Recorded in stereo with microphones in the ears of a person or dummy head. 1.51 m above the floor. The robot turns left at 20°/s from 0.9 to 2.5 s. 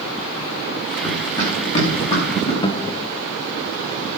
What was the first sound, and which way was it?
Running footsteps, 15° left (ahead or behind).